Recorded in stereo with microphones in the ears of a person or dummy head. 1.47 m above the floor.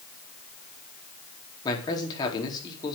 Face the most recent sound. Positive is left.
turn(degrees=25)  # may be behind; listen again after turning